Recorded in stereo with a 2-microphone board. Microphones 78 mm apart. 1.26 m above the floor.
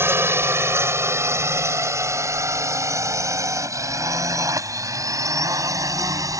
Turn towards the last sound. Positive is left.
turn(degrees=-45)  # may be behind; listen again after turning